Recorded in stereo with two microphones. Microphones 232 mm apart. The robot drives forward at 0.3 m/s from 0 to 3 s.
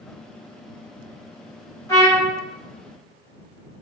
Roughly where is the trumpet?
Centre.